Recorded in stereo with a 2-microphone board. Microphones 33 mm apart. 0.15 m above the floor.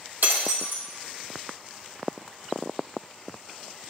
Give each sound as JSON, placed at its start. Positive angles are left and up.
{"t": 0.2, "sound": "breaking glass", "side_deg": -70, "distance_m": 2.5}